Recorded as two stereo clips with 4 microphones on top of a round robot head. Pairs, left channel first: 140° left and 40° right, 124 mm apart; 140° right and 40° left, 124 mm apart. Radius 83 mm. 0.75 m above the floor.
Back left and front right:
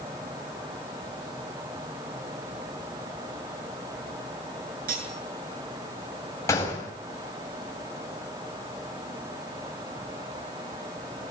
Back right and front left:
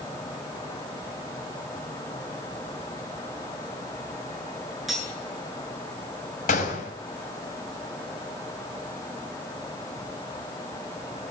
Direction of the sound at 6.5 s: 155° right.